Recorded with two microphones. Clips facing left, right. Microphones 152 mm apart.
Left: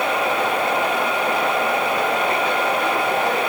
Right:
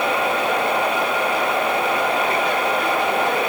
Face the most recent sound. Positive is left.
No sound to turn to.